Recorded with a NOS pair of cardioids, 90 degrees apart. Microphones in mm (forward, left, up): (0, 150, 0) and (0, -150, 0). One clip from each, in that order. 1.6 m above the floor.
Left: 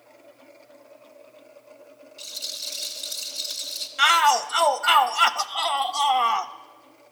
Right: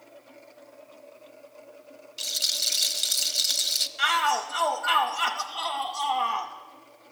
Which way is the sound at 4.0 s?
40° left.